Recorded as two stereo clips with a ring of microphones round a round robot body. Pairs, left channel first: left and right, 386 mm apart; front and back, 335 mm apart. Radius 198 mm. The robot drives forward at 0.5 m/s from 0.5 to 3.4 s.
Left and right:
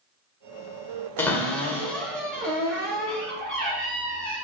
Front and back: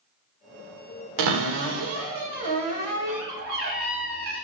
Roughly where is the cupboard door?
Behind.